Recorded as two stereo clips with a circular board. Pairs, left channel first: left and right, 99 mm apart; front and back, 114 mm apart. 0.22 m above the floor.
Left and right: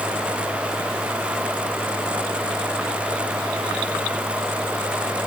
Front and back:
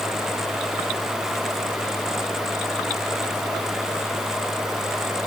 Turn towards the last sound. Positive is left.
No sound to turn to.